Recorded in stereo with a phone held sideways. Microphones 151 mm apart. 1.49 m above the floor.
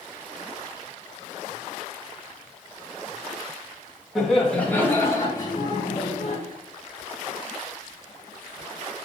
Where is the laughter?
Centre (ahead or behind), 2.5 m; by 6.4 s 50° left (ahead or behind), 2.5 m.